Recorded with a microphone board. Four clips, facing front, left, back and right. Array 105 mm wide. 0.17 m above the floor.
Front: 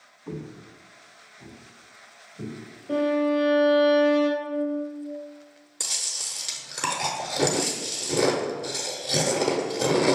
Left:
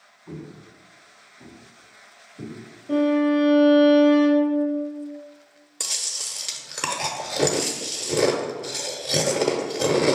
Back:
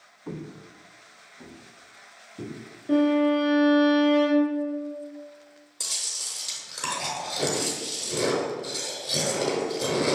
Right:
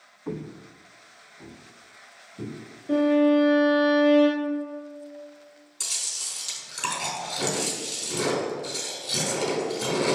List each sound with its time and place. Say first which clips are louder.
0.3 s footsteps: right 4 dB, front 1 dB; 110° right, 0.6 m; by 2.5 s 150° right, 3 m
2.9 s a violin: even, back 2 dB; 155° right, 2.0 m
5.8 s chewing: left 5 dB, front 3 dB; 70° left, 0.7 m